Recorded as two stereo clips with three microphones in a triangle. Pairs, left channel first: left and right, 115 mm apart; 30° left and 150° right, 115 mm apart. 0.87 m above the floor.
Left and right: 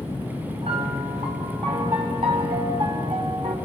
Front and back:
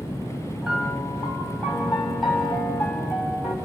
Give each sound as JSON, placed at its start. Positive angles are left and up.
{"t": 0.6, "sound": "a piano", "azimuth_deg": -60, "distance_m": 4.5}